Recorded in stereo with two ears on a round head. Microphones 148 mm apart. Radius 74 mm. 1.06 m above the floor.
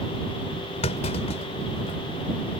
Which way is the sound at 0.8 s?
40° left (ahead or behind).